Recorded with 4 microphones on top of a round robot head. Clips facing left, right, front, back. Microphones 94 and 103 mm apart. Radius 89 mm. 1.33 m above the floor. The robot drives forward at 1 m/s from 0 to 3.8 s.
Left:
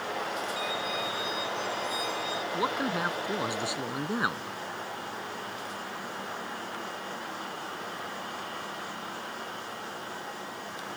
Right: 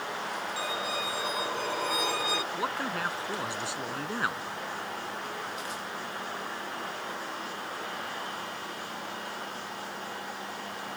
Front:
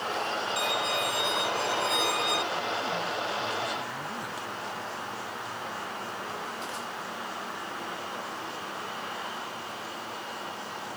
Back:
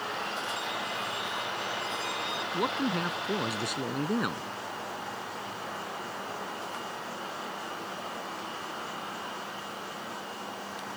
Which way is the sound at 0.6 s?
20° right.